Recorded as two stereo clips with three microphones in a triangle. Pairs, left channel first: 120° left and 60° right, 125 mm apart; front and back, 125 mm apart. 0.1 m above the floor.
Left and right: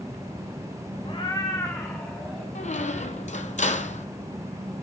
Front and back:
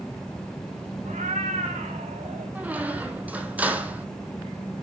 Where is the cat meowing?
165° left, 0.9 m; by 2.5 s 155° right, 2.5 m.